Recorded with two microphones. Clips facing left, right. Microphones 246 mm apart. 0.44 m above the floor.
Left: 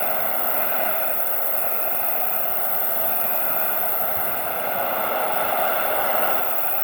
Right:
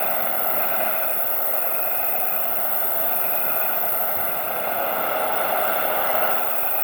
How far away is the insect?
About 3 m.